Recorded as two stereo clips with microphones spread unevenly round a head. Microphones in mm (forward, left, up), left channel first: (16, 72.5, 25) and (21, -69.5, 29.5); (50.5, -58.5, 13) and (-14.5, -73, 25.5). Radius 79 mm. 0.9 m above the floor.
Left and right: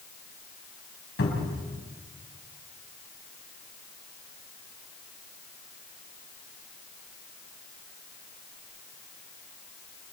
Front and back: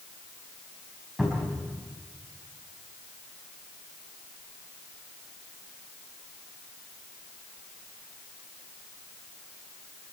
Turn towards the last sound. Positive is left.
turn(degrees=105)